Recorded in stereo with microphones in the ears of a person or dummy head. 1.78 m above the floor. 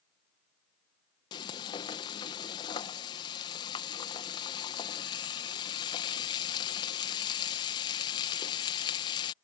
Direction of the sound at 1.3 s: 25° left (ahead or behind).